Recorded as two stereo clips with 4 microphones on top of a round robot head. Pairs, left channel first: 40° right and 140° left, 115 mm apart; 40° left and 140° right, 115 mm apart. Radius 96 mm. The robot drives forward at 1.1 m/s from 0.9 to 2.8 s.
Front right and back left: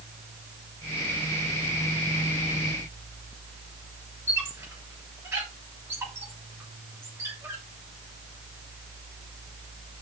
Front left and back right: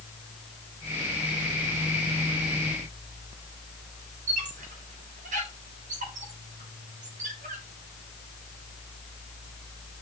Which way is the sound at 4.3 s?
150° right.